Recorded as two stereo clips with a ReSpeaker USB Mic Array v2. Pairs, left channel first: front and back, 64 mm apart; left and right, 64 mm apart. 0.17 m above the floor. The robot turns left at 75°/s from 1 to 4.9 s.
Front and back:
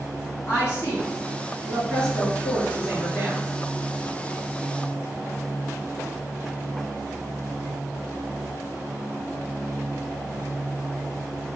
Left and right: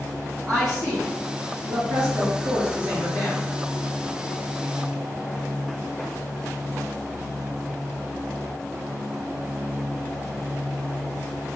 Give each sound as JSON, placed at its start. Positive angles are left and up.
{"t": 0.5, "sound": "a woman speaking", "azimuth_deg": -5, "distance_m": 1.8}